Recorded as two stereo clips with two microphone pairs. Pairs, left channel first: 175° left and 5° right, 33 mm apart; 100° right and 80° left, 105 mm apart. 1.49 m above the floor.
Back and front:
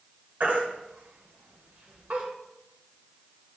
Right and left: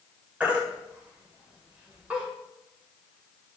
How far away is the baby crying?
About 1.8 m.